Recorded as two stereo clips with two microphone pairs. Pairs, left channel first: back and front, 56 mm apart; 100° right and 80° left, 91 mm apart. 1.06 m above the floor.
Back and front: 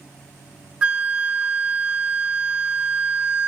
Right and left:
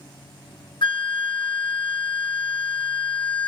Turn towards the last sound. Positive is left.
turn(degrees=-75)